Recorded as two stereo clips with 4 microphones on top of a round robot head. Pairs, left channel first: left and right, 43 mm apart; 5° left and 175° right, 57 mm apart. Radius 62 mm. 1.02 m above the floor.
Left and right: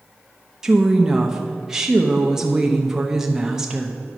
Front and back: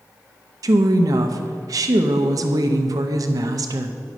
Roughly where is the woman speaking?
Behind.